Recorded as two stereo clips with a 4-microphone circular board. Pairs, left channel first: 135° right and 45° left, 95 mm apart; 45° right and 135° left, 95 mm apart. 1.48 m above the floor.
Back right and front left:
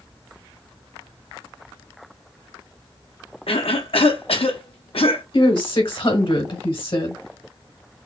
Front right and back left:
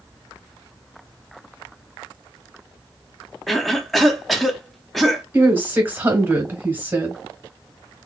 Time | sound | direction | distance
3.5 | a cough | 135° right | 0.7 m
5.3 | a woman speaking | 155° right | 1.1 m